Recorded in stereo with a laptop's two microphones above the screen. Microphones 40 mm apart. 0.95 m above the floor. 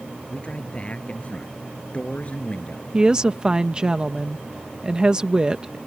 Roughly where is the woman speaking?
Right.